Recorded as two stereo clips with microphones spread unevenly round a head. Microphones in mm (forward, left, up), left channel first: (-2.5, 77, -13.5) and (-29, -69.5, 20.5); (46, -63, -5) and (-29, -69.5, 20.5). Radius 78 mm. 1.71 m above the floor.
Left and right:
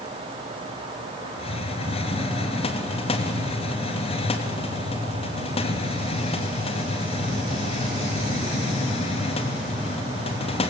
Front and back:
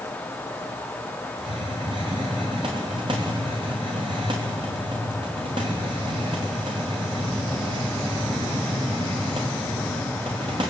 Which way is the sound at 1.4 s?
135° left.